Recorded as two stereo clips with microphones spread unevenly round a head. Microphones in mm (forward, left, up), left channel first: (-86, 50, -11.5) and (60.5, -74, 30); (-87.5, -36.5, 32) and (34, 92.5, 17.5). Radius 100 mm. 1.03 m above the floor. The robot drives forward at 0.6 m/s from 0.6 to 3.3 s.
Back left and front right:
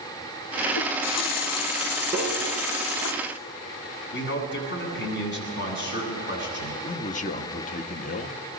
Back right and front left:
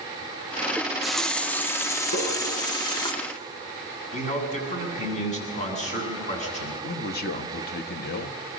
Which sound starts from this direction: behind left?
A running tap, at 0.8 s.